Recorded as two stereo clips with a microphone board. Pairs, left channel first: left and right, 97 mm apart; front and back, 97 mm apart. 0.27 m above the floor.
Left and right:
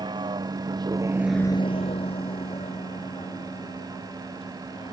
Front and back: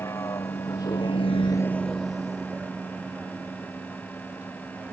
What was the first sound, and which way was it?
A vehicle, 60° right.